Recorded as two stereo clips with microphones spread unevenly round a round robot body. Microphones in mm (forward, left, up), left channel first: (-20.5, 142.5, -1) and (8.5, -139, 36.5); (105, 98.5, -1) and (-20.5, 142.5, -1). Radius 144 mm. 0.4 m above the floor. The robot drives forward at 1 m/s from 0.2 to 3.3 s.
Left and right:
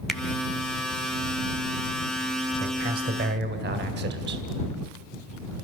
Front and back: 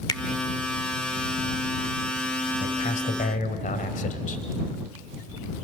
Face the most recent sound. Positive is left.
turn(degrees=-30)